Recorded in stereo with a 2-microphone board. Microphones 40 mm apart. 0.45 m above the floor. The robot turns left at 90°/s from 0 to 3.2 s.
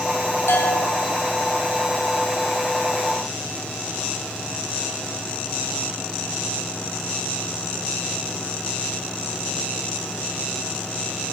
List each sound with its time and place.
0.5 s a bell: 85° left, 8 m; by 1.1 s 30° left, 8 m